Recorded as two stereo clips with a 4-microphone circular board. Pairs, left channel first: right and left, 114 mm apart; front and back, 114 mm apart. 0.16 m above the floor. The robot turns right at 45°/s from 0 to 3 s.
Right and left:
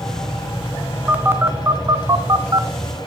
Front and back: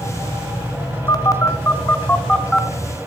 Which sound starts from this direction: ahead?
A phone buzzing, at 1.1 s.